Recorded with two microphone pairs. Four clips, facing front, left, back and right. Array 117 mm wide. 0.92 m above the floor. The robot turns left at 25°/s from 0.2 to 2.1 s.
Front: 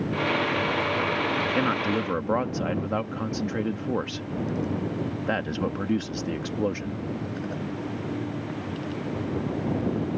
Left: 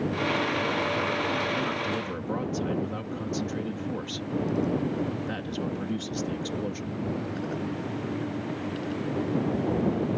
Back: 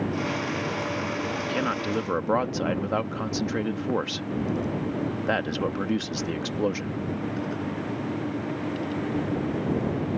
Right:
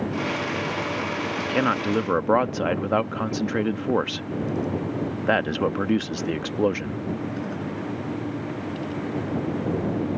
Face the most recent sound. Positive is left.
turn(degrees=-100)